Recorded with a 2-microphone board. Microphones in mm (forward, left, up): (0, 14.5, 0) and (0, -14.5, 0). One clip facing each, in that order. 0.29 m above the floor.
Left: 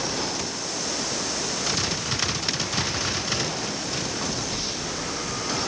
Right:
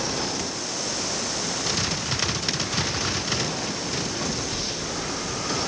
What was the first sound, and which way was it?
Only background noise.